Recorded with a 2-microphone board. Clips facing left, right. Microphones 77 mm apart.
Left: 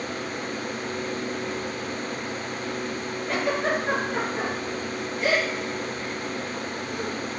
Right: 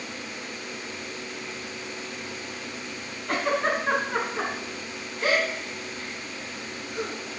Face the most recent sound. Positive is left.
turn(degrees=-65)  # may be behind; listen again after turning